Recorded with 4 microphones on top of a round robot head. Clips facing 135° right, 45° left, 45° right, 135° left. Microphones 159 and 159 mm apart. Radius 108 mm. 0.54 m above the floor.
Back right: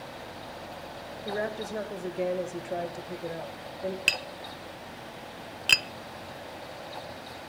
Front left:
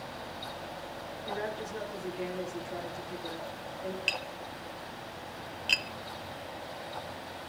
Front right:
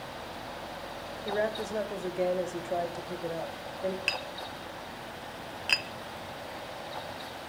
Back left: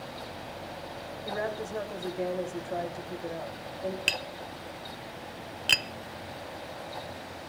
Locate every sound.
1.2 s a woman speaking: 115° right, 3.5 m
4.1 s tapping: 170° right, 0.5 m